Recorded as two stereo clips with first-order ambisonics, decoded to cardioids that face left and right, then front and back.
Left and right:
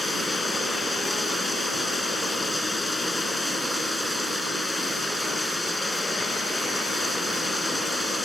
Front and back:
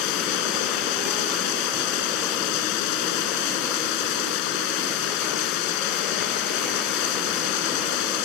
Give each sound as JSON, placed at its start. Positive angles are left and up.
{"t": 0.0, "sound": "running water", "azimuth_deg": 5}